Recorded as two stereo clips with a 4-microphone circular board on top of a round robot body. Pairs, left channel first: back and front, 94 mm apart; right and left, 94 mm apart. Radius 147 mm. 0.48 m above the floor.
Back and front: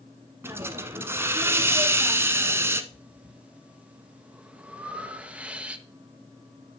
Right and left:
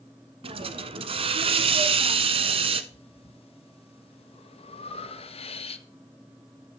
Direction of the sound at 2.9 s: 75° right.